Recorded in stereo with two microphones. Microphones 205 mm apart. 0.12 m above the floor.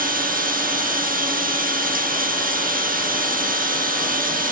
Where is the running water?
45° right (ahead or behind), 1.7 m.